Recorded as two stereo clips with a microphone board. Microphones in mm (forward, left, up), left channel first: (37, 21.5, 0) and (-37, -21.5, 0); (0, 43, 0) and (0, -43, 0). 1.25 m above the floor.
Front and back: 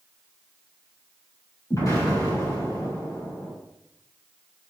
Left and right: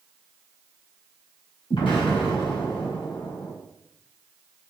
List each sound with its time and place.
1.7 s an explosion: 80° left, 5.5 m